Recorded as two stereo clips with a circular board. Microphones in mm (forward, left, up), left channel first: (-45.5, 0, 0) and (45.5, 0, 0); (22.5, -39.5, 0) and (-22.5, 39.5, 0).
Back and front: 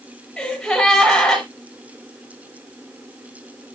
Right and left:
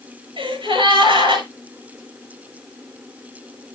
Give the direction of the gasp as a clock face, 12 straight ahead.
9 o'clock.